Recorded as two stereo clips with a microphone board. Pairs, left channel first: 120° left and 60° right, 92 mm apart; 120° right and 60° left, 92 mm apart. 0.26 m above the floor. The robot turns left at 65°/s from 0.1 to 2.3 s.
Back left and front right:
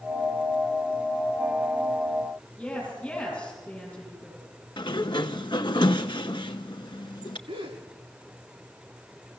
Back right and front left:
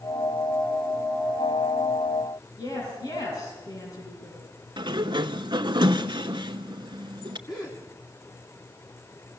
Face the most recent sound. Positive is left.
turn(degrees=-75)